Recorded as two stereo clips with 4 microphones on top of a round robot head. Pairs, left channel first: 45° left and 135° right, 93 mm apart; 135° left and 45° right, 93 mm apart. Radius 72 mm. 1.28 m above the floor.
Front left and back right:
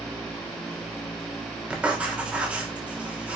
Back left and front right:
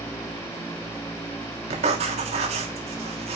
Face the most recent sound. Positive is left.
turn(degrees=-60)